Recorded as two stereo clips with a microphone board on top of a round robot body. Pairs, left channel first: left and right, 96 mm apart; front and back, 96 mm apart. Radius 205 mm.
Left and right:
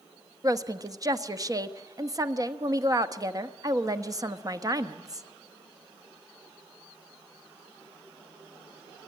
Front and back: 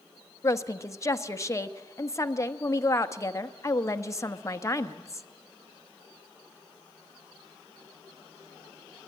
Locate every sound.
0.4 s a woman speaking: 50° right, 1.2 m